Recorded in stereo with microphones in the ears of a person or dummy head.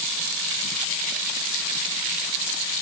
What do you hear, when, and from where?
Only background noise.